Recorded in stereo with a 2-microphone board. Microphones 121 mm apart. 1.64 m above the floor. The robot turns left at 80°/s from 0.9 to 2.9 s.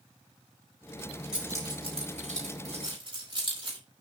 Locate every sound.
1.3 s keys jangling: 5° right (ahead or behind), 5 m; by 3.8 s 45° right (ahead or behind), 5 m